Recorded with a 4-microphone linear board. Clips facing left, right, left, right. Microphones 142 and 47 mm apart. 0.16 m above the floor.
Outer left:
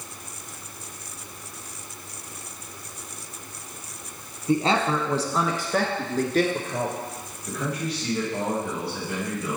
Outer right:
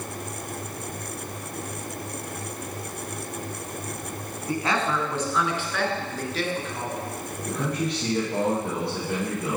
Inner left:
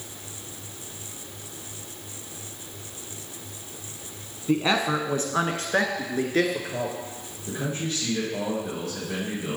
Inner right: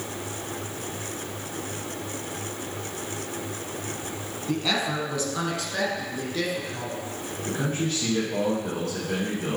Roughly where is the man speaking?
Right.